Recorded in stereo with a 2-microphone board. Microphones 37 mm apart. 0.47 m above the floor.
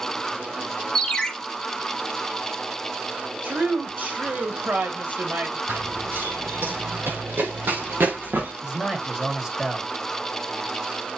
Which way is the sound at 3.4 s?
55° right (ahead or behind).